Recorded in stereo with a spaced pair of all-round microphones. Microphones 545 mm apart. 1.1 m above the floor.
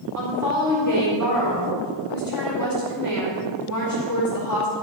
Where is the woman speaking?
30° left (ahead or behind), 4 m.